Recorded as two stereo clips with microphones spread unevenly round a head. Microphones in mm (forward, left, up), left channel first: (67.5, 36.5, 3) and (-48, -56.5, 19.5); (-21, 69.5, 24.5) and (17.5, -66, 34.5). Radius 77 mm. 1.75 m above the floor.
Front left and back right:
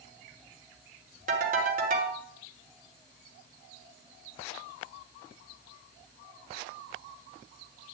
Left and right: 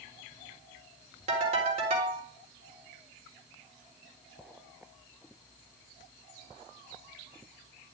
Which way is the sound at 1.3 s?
115° right.